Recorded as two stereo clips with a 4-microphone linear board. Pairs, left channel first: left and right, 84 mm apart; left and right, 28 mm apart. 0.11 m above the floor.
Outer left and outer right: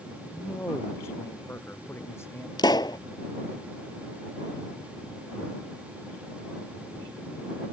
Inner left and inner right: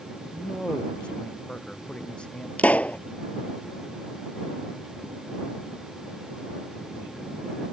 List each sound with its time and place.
0.3 s a man speaking: 30° left (ahead or behind)
2.6 s a pop: 60° left (ahead or behind)